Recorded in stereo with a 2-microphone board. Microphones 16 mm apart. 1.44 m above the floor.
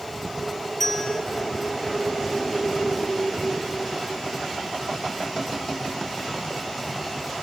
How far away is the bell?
About 2.5 m.